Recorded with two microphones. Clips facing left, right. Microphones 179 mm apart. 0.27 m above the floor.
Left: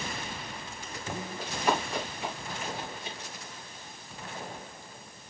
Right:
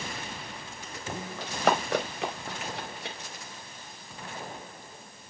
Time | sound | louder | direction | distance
1.4 | running footsteps | right 3 dB | 85° right | 4 m